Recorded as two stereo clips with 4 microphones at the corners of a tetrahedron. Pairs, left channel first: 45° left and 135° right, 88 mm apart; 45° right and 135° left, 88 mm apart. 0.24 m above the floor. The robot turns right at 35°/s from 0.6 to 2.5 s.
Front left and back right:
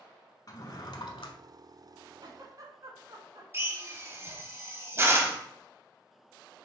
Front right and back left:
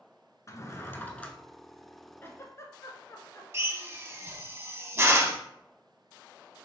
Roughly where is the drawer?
Ahead.